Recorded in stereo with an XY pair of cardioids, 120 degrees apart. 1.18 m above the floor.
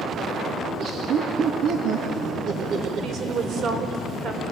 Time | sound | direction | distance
0.7 | laughter | 65° right | 2 m
3.0 | a woman speaking | 60° right | 5.5 m